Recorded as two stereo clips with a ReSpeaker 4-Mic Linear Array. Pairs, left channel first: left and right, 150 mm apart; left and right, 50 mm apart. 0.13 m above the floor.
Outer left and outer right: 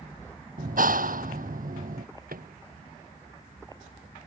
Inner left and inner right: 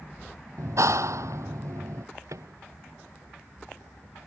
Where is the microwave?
75° right (ahead or behind).